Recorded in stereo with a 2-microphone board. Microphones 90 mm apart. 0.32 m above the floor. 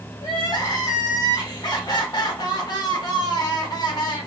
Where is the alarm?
No alarm in this recording.